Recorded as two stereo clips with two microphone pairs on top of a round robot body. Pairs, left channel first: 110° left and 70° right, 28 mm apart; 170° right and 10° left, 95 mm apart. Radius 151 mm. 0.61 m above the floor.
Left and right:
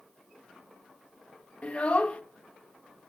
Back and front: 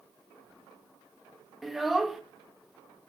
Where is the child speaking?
95° left, 0.5 m.